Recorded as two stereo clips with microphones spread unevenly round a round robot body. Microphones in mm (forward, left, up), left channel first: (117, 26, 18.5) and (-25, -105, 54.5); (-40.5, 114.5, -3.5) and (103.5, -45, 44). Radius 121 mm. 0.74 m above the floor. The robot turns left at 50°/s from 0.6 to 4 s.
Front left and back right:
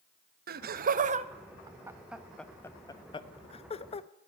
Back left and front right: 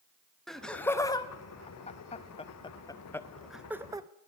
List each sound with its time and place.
0.5 s laughter: 155° right, 0.6 m; by 4.1 s 35° left, 0.6 m